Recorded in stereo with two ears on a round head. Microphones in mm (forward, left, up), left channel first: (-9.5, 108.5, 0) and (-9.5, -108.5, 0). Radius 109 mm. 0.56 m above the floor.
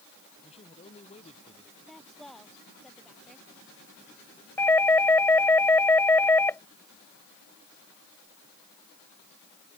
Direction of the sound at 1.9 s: Centre (ahead or behind).